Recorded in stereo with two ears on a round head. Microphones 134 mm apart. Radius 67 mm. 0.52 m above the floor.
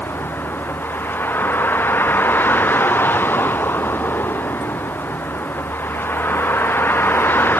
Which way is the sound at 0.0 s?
10° left (ahead or behind).